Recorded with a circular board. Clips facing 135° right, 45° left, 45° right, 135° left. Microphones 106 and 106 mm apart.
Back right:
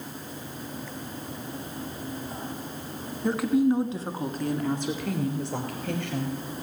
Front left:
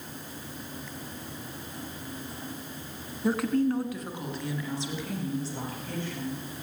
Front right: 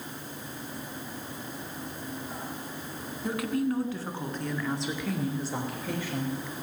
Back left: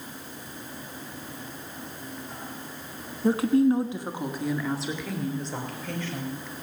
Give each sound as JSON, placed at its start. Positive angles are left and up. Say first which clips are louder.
{"t": 3.2, "sound": "a woman speaking", "louder": "back right 3 dB, back left 8 dB", "azimuth_deg": 125, "distance_m": 1.4}